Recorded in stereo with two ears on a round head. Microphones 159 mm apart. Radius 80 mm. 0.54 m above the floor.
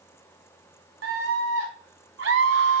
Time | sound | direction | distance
1.0 | a scream | 80° right | 5 m